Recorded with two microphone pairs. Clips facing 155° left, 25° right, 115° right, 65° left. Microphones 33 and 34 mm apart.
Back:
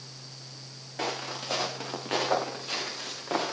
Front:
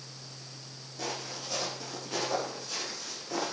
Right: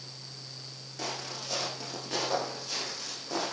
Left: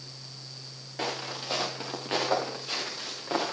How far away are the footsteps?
About 7.5 m.